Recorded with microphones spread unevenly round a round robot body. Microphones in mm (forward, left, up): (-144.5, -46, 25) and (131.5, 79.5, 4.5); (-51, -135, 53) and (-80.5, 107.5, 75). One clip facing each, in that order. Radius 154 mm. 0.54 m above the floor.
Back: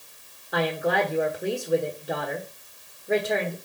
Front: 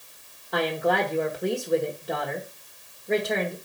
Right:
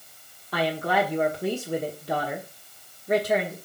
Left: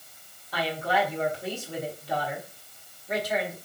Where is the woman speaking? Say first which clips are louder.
Even, right 3 dB; 70° right, 1.2 m.